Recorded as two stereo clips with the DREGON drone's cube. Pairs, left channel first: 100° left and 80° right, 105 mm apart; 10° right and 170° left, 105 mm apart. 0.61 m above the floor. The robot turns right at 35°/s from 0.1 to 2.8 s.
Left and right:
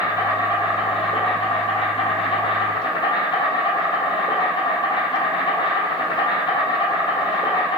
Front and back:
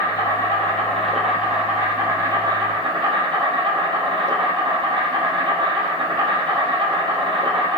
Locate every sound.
0.0 s an insect: 45° left, 1.2 m; by 7.8 s 135° left, 1.2 m